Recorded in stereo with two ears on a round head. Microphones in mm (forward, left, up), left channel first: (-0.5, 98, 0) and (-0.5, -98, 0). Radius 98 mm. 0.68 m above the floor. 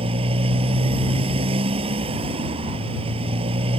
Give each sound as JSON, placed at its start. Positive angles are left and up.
{"t": 0.0, "sound": "a motorcycle", "side_deg": -25}